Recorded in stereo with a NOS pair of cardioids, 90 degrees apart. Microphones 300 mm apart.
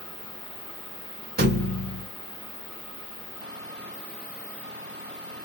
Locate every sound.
1.4 s a thud: 35° right, 1.7 m